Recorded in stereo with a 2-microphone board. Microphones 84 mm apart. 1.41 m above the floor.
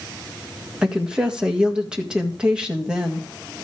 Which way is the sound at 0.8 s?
10° right (ahead or behind).